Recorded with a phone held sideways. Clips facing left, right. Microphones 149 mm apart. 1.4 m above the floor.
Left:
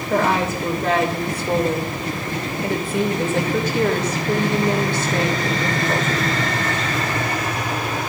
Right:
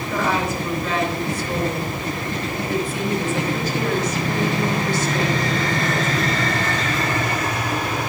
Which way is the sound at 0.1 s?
60° left (ahead or behind).